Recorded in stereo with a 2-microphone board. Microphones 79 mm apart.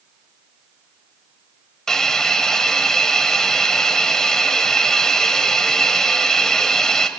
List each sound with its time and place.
1.9 s a hiss: 5° left (ahead or behind), 1.2 m